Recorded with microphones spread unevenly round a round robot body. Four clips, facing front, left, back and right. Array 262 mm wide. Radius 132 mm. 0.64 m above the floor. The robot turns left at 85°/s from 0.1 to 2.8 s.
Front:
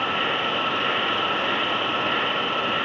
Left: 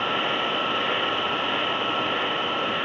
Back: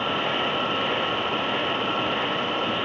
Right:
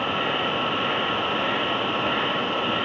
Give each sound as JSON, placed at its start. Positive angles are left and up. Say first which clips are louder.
{"t": 0.0, "sound": "an insect", "louder": "right 1 dB, even", "azimuth_deg": 100, "distance_m": 2.0}